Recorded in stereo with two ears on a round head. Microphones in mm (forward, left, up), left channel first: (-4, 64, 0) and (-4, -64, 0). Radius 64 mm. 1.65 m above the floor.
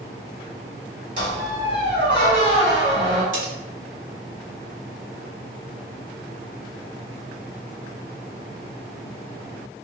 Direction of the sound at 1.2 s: 40° right (ahead or behind).